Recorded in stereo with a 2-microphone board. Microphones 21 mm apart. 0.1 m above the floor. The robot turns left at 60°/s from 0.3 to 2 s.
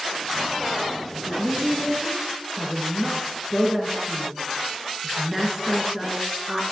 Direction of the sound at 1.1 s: 25° right (ahead or behind).